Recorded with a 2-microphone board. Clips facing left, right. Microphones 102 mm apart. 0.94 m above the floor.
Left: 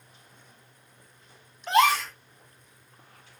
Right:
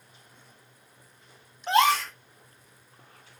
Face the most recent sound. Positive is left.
turn(degrees=-30)  # may be behind; listen again after turning